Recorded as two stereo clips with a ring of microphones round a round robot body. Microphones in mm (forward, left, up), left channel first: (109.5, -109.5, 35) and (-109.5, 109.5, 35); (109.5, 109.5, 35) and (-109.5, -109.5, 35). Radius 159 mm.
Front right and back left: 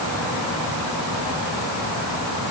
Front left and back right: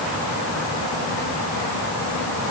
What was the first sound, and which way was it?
Only background noise.